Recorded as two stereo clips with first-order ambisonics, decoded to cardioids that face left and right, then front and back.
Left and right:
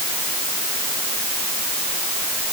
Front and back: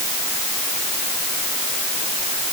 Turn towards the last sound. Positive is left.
No sound to turn to.